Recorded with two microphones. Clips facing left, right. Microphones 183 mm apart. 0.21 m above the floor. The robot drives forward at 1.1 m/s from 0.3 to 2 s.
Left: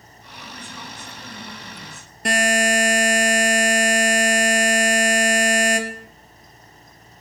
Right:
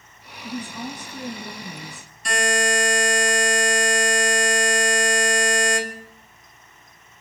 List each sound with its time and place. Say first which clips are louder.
0.4 s a woman speaking: right 9 dB; 75° right (ahead or behind), 6 m; by 2.1 s 80° right, 6 m
2.2 s a buzzer: left 3 dB; 65° left (ahead or behind), 3.5 m